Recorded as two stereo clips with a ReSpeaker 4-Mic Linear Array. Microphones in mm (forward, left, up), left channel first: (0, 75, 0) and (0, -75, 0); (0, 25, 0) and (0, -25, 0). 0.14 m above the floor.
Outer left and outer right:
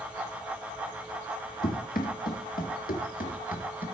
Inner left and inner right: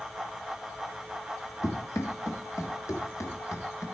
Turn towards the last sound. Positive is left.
turn(degrees=65)  # may be behind; listen again after turning